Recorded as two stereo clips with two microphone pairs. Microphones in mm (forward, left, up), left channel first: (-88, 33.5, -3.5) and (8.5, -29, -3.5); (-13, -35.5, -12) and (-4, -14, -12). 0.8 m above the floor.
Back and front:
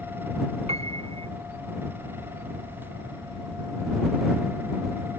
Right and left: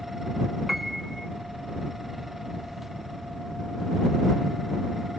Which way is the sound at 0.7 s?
10° right.